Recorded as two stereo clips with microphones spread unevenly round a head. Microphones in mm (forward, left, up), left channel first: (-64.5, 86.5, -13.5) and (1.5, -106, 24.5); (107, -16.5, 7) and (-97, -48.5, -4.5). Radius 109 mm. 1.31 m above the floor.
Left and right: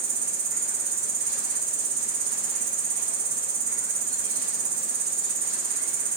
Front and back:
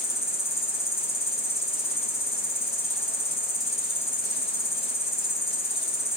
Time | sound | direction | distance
0.0 | an insect | 55° right | 0.9 m